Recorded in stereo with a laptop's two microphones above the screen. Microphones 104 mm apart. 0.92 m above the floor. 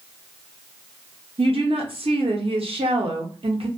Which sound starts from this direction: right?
A woman speaking, at 1.4 s.